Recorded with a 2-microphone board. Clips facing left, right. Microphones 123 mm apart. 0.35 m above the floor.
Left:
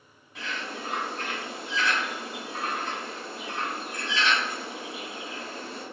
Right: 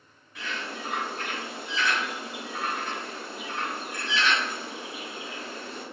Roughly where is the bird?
Left.